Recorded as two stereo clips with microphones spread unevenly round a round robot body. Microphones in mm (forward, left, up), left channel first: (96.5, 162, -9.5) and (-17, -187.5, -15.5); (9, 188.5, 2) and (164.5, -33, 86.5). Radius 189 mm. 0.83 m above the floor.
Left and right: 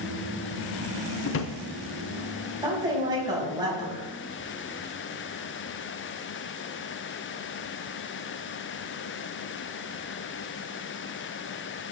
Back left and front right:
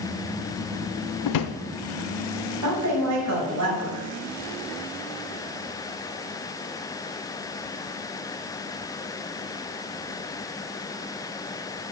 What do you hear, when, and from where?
1.2 s a drawer: 120° left, 0.6 m
2.6 s a woman speaking: 30° right, 5.5 m